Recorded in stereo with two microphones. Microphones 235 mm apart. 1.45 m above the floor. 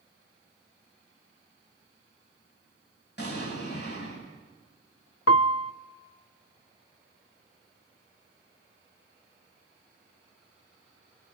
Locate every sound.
3.2 s an explosion: 50° left (ahead or behind), 9.5 m
5.3 s a piano: 75° left (ahead or behind), 0.7 m